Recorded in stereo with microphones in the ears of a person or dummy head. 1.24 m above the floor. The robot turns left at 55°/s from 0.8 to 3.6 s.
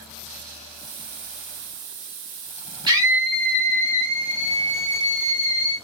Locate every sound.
2.9 s a scream: 155° right, 3 m; by 5.8 s 165° left, 3 m